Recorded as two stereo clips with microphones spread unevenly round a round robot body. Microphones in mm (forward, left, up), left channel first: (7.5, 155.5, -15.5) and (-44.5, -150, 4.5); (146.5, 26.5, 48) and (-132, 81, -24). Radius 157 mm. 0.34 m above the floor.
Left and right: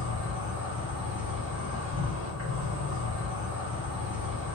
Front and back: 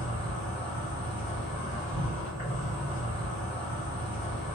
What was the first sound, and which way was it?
An insect, 95° right.